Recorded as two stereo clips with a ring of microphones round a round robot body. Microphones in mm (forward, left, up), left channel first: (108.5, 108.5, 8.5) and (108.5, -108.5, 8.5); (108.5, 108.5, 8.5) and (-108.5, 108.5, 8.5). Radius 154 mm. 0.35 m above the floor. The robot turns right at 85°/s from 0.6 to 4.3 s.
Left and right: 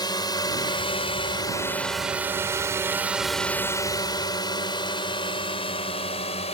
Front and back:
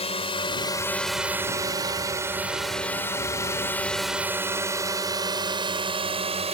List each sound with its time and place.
0.0 s a drone: 35° left; by 6.5 s 140° left